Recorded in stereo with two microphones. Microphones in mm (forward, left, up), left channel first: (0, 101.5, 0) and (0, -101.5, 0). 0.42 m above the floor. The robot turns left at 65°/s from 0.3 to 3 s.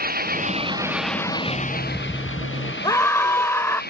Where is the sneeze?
I don't hear a sneeze.